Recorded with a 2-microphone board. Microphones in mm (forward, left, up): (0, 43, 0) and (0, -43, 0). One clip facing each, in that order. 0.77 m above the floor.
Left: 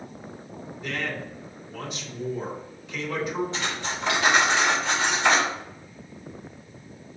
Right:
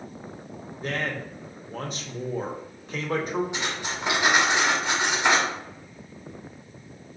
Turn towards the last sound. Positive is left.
turn(degrees=-15)  # may be behind; listen again after turning